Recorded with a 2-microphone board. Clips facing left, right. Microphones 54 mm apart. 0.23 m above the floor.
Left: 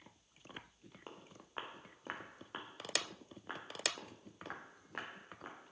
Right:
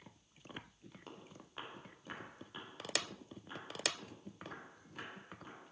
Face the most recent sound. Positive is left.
turn(degrees=75)  # may be behind; listen again after turning